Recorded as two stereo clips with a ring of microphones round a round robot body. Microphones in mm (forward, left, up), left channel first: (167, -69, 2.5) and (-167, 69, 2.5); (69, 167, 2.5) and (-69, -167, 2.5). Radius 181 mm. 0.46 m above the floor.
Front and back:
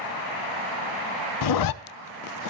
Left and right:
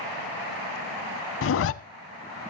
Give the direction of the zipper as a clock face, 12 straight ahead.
12 o'clock.